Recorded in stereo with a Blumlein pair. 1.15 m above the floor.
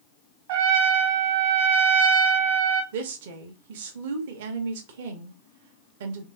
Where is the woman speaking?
55° right, 0.8 m.